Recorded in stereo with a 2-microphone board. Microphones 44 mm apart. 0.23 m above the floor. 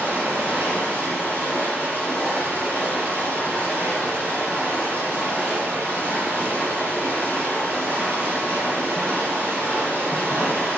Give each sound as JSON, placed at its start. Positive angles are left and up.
{"t": 0.0, "sound": "running water", "side_deg": -65, "distance_m": 5.5}